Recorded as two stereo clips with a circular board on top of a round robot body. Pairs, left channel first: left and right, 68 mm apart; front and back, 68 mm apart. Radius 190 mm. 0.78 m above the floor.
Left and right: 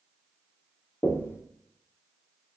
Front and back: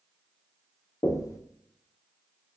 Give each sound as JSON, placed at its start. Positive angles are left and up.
{"t": 1.0, "sound": "knocking", "azimuth_deg": 35, "distance_m": 0.7}